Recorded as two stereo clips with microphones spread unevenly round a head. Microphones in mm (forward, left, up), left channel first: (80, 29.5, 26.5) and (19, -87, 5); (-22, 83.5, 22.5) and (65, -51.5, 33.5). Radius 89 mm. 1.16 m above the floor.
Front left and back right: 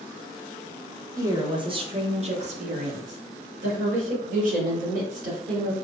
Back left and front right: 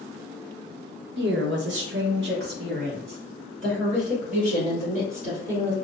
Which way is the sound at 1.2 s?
55° right.